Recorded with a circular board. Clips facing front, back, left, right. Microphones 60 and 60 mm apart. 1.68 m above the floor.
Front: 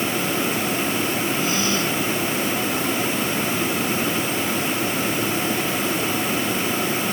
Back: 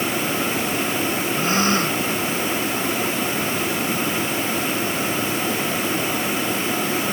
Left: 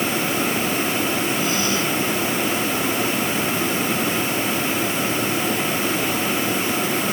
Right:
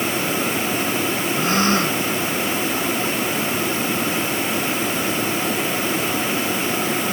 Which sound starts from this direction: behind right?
A gasp, at 1.4 s.